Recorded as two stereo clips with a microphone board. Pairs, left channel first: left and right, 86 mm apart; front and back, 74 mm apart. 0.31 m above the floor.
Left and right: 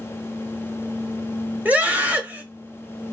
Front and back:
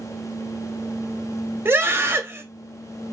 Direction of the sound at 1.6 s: 145° right.